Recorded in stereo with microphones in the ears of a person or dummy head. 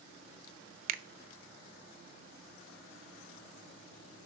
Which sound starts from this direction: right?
A finger snap, at 0.9 s.